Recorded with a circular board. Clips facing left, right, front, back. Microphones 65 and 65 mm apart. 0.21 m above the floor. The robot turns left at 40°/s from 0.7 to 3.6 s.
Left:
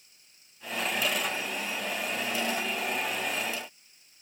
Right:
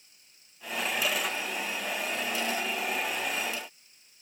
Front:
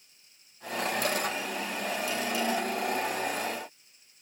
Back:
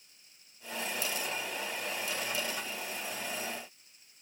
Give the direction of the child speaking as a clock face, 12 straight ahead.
I don't hear a child speaking.